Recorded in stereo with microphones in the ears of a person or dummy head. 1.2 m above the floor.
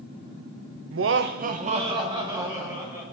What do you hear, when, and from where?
0.9 s laughter: 65° right (ahead or behind), 0.6 m; by 3.0 s 10° right (ahead or behind), 2 m